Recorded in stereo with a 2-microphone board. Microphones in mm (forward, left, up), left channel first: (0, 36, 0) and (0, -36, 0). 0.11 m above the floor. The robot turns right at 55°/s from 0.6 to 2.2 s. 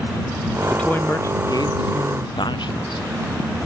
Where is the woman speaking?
10° left; by 3.0 s 90° left.